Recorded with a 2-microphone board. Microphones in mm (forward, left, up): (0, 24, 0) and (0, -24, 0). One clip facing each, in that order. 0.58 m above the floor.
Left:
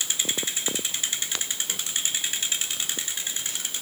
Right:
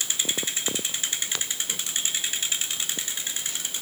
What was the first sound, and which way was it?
Only background noise.